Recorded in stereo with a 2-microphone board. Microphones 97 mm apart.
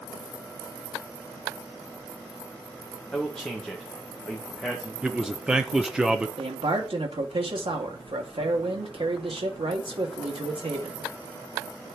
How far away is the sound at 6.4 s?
About 2 m.